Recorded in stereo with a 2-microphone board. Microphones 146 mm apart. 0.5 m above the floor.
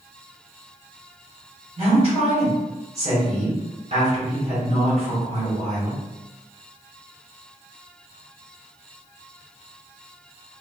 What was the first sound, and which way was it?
A woman speaking, 40° right (ahead or behind).